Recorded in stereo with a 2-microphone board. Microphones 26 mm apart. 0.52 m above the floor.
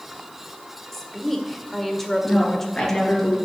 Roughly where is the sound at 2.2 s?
Left.